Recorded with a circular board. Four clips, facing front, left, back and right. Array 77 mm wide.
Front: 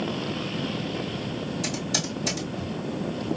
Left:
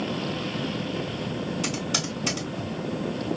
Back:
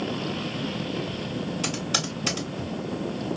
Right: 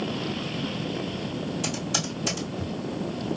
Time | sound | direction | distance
1.6 | typing on a keyboard | 155° left | 2 m